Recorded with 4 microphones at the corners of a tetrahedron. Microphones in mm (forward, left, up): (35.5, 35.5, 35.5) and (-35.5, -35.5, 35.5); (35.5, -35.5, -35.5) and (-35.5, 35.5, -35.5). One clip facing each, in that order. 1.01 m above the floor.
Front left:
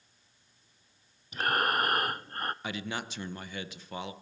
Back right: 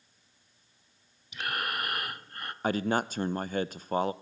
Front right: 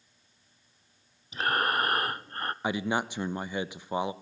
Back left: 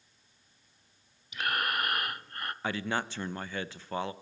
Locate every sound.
1.3 s breathing: 10° left, 0.6 m
2.6 s a man speaking: 110° right, 0.6 m